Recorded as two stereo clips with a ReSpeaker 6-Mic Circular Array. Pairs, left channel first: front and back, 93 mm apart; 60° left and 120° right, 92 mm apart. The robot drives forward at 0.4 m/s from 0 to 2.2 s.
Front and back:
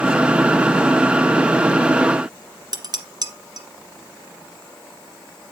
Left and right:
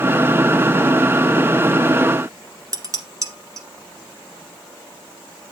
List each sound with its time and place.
2.7 s dishes clattering: 160° right, 1.4 m